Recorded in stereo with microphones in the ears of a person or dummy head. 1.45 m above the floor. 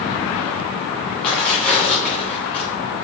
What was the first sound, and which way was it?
Tearing paper, centre (ahead or behind).